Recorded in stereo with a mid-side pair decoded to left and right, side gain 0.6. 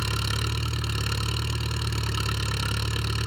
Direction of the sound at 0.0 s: Straight ahead.